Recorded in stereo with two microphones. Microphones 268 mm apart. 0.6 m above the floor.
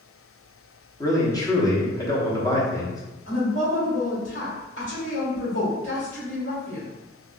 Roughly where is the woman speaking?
Left.